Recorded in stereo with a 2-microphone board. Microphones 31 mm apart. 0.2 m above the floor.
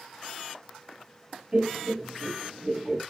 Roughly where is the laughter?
Right.